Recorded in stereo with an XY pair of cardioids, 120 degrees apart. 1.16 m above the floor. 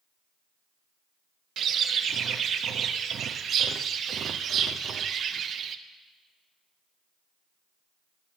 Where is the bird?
50° right, 0.6 m.